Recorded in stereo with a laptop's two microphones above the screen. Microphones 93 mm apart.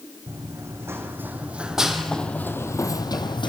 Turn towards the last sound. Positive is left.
turn(degrees=55)  # may be behind; listen again after turning